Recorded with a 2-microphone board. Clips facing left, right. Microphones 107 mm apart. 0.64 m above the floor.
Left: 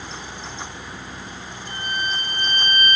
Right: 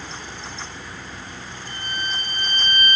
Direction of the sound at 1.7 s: 40° left (ahead or behind).